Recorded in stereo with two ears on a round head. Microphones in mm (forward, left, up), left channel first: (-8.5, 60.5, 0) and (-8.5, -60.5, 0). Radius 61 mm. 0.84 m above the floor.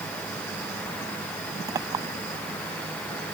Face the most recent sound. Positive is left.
turn(degrees=-25)  # may be behind; listen again after turning